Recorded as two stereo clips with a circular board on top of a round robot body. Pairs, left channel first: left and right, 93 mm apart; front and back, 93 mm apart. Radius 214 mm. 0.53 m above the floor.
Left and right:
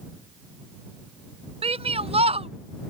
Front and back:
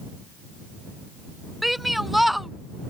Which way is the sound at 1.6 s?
90° right.